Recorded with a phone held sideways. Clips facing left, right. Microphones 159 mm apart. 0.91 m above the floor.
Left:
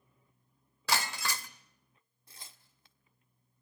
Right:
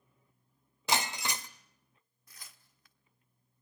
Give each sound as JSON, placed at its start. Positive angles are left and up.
{"t": 0.9, "sound": "breaking glass", "side_deg": -20, "distance_m": 1.0}
{"t": 2.3, "sound": "tearing paper", "side_deg": 30, "distance_m": 1.3}